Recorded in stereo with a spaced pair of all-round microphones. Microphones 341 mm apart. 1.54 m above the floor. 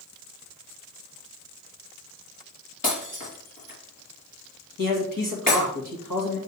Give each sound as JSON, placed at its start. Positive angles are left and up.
{"t": 2.8, "sound": "breaking glass", "side_deg": 70, "distance_m": 4.0}
{"t": 4.8, "sound": "a man speaking", "side_deg": 70, "distance_m": 2.0}